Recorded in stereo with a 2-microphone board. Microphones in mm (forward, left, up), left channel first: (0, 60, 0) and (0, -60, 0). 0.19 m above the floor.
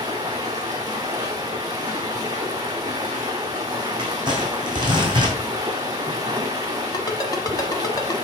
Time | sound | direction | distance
0.0 | running water | 35° right (ahead or behind) | 1.3 m
4.0 | crumpling | 40° right (ahead or behind) | 2.5 m
6.9 | a ringtone | 30° left (ahead or behind) | 1.0 m